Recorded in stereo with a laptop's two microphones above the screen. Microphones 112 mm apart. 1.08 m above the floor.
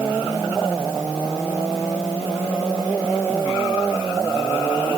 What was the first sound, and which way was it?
Only background noise.